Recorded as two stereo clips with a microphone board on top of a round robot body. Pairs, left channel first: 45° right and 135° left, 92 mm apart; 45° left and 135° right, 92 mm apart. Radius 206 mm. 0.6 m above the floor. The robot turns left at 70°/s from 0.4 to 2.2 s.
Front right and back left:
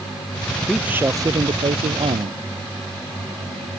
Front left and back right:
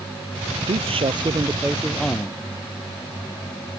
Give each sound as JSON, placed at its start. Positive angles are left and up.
{"t": 0.7, "sound": "a man speaking", "azimuth_deg": -140}